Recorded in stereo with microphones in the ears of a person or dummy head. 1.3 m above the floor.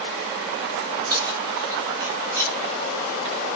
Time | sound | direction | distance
1.1 | keys jangling | 20° right (ahead or behind) | 3.5 m